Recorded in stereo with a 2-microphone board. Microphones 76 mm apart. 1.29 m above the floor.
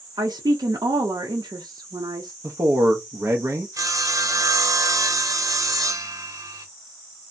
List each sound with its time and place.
0.2 s a woman speaking: 65° right (ahead or behind), 0.7 m
2.4 s a man speaking: 40° right (ahead or behind), 0.6 m
3.8 s sawing: 50° right (ahead or behind), 0.8 m